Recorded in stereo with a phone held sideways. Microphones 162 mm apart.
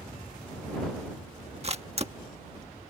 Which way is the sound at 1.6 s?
40° right (ahead or behind).